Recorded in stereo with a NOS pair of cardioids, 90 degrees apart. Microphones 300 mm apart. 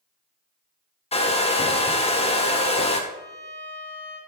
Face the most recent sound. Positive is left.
turn(degrees=-60)